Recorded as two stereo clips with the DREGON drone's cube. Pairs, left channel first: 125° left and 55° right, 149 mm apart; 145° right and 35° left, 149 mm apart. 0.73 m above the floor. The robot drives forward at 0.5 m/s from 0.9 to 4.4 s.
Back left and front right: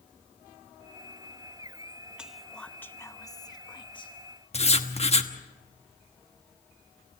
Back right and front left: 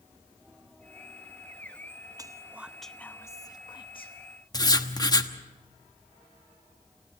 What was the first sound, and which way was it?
Whispering, 20° left.